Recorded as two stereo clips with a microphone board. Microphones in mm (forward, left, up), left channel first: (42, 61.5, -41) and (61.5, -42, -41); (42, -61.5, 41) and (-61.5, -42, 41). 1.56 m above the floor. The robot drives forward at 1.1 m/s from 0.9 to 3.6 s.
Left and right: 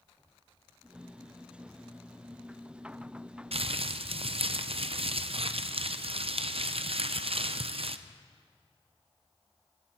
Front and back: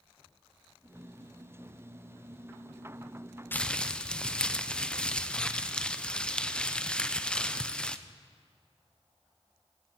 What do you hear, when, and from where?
3.5 s crumpling: 80° right, 0.6 m; by 8.0 s 90° right, 0.6 m